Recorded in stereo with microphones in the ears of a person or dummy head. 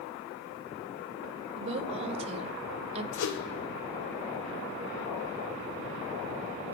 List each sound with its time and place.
1.6 s a woman speaking: 35° right (ahead or behind), 0.7 m
3.1 s a whoosh: 65° left (ahead or behind), 0.7 m